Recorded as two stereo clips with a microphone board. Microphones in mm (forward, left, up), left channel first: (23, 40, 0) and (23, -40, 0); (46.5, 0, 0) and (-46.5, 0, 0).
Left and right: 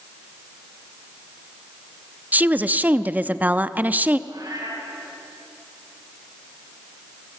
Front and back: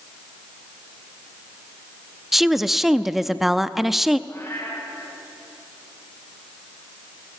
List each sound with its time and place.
2.3 s a woman speaking: 95° right, 0.6 m
4.3 s a cat meowing: 65° right, 3.5 m